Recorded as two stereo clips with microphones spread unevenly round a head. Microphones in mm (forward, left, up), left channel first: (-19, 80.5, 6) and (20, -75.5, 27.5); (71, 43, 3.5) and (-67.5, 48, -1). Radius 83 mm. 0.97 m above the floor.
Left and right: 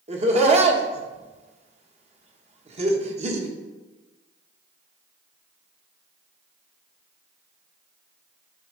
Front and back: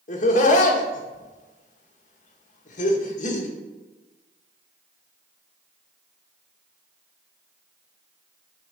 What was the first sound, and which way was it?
Laughter, 25° right.